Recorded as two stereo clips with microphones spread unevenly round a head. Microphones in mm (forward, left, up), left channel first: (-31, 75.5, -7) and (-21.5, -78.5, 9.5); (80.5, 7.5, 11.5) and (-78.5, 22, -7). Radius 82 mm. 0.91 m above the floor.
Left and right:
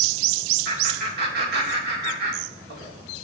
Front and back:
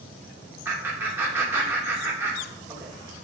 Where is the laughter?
110° right, 2.5 m.